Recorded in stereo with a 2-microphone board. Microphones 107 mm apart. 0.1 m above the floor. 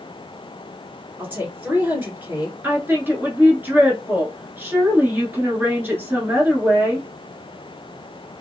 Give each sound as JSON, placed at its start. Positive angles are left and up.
{"t": 1.2, "sound": "a woman speaking", "side_deg": -20, "distance_m": 1.7}
{"t": 2.6, "sound": "a woman speaking", "side_deg": -20, "distance_m": 1.1}